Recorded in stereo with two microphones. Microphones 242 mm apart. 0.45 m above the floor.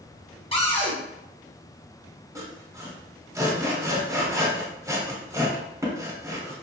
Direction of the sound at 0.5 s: 25° left (ahead or behind).